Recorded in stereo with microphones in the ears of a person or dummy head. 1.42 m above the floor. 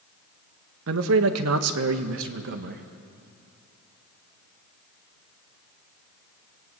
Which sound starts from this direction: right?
A man speaking, at 0.9 s.